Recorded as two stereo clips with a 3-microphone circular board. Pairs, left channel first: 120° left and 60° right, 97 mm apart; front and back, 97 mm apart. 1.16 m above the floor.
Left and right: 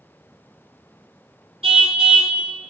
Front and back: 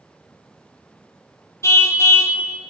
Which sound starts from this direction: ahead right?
A car horn, at 1.6 s.